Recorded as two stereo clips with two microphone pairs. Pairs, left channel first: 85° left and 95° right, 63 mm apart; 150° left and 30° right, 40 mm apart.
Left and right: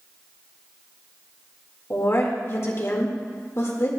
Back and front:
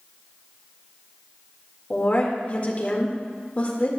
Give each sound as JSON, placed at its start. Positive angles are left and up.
{"t": 1.9, "sound": "a woman speaking", "azimuth_deg": 105, "distance_m": 1.7}